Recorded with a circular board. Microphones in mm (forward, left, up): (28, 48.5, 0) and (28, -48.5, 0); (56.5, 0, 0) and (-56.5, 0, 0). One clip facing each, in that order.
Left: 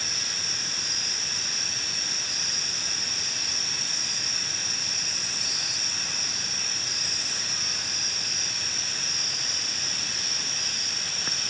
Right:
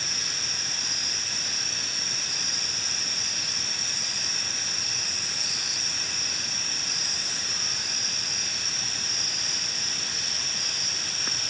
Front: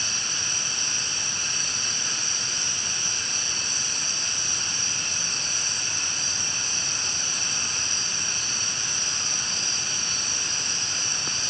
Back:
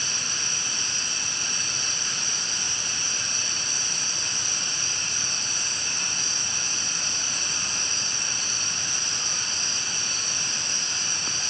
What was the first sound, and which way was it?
Only background noise.